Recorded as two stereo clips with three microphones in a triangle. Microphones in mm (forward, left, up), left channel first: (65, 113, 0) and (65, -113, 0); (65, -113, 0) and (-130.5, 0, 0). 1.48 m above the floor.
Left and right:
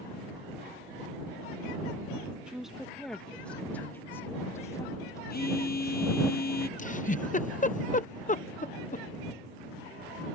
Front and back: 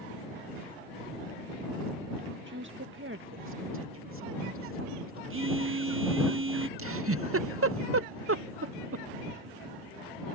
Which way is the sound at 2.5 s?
175° right.